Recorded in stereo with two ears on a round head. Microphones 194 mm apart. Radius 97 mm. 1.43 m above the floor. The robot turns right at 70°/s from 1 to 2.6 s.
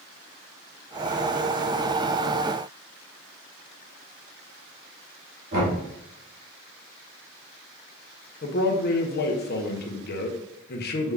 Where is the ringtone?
I don't hear a ringtone.